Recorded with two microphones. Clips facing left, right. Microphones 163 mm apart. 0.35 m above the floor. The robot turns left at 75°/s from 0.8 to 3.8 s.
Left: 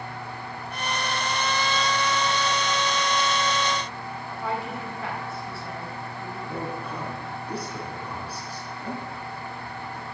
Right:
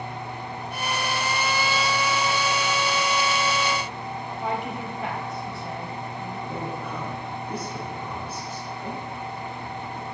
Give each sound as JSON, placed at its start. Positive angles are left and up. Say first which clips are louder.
{"t": 4.3, "sound": "a woman speaking", "louder": "right 1 dB", "side_deg": -20, "distance_m": 2.0}
{"t": 6.5, "sound": "a woman speaking", "louder": "left 1 dB", "side_deg": 30, "distance_m": 3.5}